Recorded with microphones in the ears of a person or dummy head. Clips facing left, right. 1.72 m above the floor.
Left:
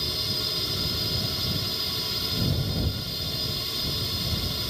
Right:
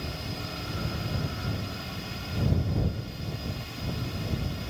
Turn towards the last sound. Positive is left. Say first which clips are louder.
# left 1 dB
turn(degrees=50)  # may be behind; listen again after turning